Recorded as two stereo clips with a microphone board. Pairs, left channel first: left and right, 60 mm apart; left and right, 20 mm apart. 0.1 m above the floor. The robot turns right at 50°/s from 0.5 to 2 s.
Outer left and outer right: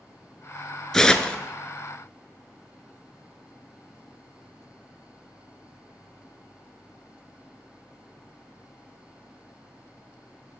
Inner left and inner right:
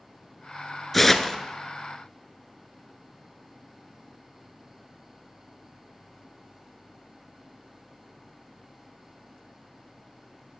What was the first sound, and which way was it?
Tearing paper, 10° left (ahead or behind).